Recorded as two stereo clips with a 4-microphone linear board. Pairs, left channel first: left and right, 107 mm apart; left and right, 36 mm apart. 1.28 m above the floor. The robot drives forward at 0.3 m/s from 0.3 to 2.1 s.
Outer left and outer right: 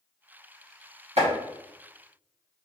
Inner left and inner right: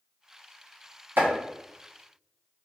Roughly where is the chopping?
Right.